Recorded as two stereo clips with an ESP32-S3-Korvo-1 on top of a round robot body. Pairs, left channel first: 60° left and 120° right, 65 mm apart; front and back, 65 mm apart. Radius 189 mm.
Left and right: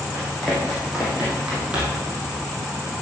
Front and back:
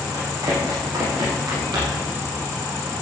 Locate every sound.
0.1 s running footsteps: 145° left, 4 m; by 2.1 s 170° left, 3.5 m